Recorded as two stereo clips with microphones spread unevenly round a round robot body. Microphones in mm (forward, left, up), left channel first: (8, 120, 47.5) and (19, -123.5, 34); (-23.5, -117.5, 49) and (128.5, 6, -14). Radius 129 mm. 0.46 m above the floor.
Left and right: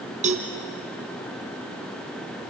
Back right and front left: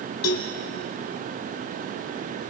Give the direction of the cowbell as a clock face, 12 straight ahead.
5 o'clock.